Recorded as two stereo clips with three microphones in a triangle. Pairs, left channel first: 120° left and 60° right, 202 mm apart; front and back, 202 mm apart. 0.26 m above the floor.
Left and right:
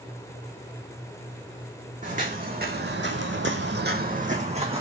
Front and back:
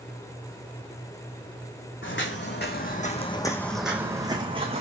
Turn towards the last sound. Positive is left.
turn(degrees=-125)